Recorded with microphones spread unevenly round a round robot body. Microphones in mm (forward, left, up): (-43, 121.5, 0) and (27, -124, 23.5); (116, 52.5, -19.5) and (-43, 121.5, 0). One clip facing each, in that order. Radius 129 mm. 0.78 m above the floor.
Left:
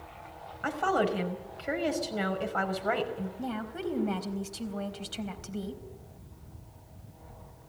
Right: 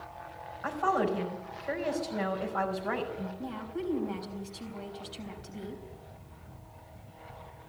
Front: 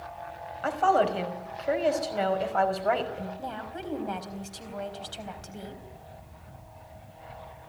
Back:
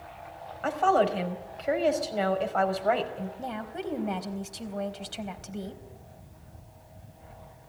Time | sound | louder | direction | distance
0.6 | a woman speaking | left 1 dB, even | 70° left | 5.5 m
3.4 | a woman speaking | left 1 dB, back 2 dB | 85° left | 4 m